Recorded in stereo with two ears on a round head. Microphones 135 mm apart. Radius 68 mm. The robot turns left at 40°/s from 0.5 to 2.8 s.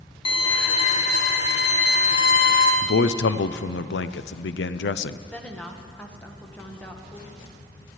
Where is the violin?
145° left, 1.5 m; by 2.7 s 55° left, 1.5 m.